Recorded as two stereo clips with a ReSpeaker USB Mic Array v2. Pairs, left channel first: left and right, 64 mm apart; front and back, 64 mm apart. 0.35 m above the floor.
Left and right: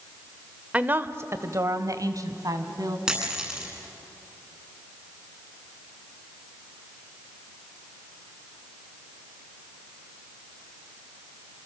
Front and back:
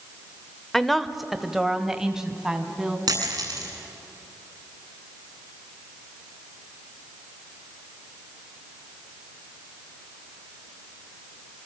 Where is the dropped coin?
170° right, 9.5 m.